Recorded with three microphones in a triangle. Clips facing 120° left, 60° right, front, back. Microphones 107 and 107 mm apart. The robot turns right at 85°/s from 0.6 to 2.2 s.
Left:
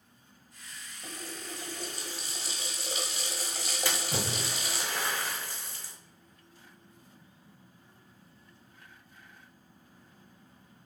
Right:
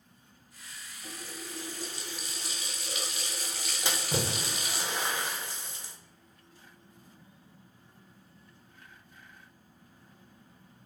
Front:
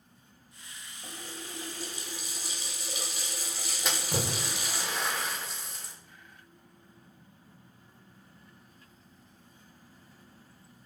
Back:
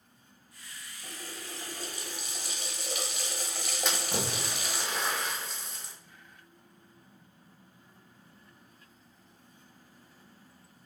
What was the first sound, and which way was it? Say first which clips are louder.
A running tap: left 1 dB, front 1 dB; 75° left.